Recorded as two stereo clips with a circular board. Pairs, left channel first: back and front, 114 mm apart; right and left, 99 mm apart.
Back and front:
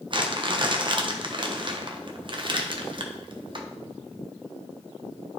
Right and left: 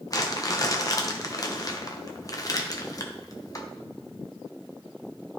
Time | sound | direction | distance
0.1 | crumpling | 40° right | 0.9 m